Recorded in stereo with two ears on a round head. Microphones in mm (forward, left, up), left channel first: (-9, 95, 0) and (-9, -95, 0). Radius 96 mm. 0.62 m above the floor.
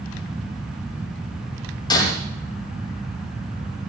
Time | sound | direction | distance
1.9 | breaking glass | 20° left (ahead or behind) | 7.5 m